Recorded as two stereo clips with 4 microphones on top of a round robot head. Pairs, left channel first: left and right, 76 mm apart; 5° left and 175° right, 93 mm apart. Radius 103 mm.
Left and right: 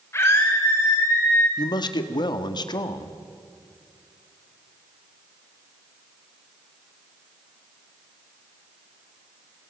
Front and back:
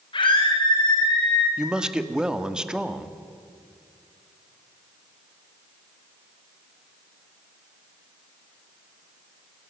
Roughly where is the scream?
Ahead left.